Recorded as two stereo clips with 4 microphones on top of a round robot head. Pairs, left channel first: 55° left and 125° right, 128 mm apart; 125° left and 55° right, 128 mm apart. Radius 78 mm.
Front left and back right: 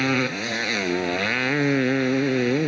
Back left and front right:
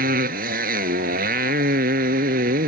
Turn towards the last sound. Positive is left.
turn(degrees=-40)